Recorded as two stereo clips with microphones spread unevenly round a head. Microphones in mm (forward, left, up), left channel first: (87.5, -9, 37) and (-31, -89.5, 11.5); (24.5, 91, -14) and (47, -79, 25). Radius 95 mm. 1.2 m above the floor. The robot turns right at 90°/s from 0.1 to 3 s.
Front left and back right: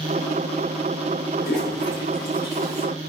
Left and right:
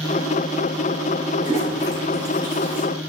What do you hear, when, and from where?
1.4 s a toilet flushing: 30° left, 5 m; by 2.8 s 155° left, 5 m